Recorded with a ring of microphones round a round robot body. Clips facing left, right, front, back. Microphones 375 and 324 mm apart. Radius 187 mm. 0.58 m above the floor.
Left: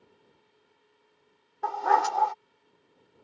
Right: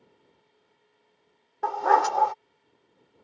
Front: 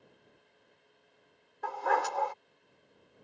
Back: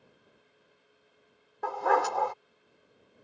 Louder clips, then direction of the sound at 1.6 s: Right 3 dB, back 5 dB; 130° right.